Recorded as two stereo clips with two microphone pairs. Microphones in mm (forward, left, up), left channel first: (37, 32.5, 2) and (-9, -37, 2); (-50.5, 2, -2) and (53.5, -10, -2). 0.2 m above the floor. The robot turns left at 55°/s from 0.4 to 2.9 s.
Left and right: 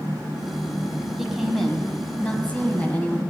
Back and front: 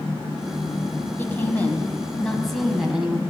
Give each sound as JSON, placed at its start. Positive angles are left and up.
{"t": 1.2, "sound": "a woman speaking", "azimuth_deg": 165, "distance_m": 1.2}